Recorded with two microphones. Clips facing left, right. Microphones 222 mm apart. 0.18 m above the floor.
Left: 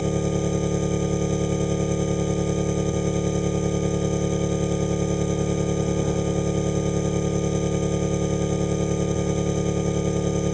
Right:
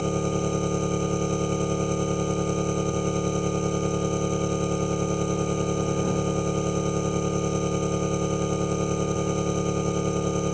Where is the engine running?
5° left (ahead or behind).